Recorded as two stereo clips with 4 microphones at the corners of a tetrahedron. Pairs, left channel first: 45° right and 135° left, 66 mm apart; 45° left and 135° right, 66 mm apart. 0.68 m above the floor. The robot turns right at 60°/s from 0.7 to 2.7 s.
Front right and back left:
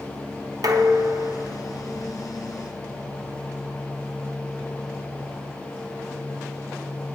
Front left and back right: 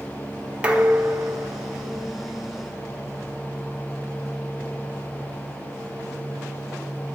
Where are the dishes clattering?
150° left, 1.0 m; by 2.1 s 125° right, 1.0 m.